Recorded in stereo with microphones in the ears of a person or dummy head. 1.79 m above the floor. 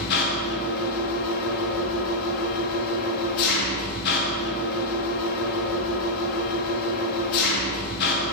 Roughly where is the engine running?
Left.